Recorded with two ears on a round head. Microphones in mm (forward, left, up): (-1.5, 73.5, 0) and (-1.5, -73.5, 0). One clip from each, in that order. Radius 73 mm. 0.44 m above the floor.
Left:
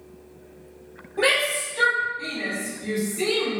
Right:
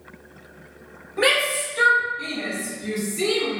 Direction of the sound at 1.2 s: 45° right (ahead or behind).